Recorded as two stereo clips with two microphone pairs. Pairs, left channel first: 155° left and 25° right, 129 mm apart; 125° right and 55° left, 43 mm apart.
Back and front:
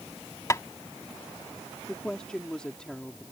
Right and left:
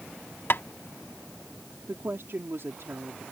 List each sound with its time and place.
0.5 s tapping: 145° right
1.9 s a woman speaking: 70° left